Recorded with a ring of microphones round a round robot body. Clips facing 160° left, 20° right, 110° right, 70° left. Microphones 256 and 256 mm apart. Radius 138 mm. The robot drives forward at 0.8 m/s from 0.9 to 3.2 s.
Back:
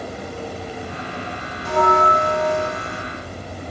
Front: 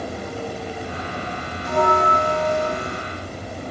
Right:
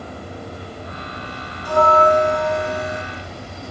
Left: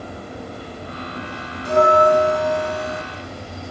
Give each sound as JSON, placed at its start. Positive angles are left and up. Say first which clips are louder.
{"t": 1.6, "sound": "a bell", "louder": "back 1 dB, left 1 dB", "azimuth_deg": 135, "distance_m": 1.0}